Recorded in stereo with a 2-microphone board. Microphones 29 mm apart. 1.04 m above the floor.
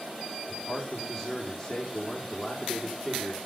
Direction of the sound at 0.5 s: 15° left (ahead or behind).